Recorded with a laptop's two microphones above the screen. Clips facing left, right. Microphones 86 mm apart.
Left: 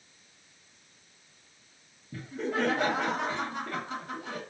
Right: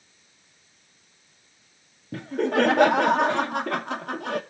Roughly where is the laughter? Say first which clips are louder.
Right 9 dB; right.